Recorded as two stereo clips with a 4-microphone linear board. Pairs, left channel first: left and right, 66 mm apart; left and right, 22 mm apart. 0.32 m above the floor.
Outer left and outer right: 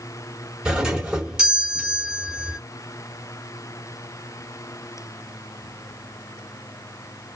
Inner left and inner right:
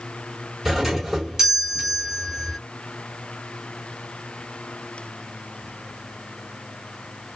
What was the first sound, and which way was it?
A doorbell, 10° right (ahead or behind).